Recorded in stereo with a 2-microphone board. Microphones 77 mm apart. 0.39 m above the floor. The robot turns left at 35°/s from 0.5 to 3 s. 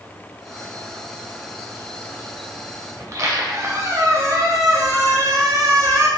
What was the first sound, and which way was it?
A squeak, 45° right (ahead or behind).